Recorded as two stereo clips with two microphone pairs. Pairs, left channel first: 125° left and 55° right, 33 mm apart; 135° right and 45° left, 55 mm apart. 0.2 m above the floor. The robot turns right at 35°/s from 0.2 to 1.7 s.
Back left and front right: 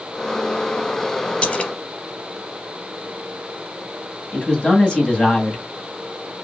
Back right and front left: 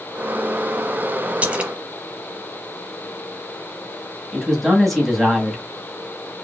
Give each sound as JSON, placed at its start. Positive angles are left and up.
{"t": 1.4, "sound": "a splash", "azimuth_deg": 95, "distance_m": 0.9}
{"t": 4.3, "sound": "a man speaking", "azimuth_deg": 135, "distance_m": 1.8}